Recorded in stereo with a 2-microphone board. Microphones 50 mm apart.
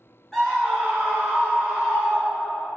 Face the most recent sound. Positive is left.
turn(degrees=-35)  # may be behind; listen again after turning